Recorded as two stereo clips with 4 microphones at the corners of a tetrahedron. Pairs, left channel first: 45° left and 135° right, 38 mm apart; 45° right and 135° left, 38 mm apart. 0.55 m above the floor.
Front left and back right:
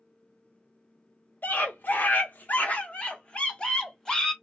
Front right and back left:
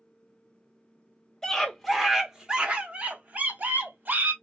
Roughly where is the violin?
I don't hear a violin.